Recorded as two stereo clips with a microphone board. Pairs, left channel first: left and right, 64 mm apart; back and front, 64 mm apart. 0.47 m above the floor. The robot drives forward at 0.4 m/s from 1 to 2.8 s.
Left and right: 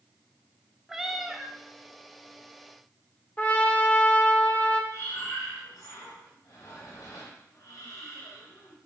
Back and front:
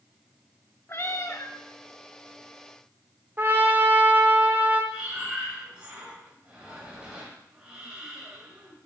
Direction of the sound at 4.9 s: 75° left.